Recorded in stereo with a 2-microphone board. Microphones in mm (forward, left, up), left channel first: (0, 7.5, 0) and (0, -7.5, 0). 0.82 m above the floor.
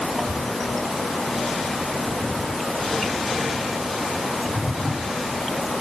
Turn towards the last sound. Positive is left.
No sound to turn to.